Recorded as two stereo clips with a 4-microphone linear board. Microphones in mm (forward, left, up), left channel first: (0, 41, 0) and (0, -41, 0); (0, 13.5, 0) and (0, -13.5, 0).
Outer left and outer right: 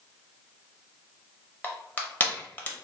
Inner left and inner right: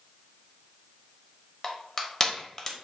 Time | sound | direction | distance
1.6 | crushing | 20° left (ahead or behind) | 0.6 m